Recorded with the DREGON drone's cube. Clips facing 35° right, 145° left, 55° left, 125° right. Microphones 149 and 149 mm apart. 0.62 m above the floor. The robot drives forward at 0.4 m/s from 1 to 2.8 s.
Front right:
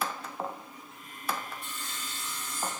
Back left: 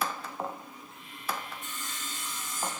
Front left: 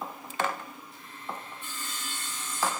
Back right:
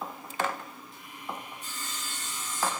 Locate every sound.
1.6 s sawing: 175° right, 4 m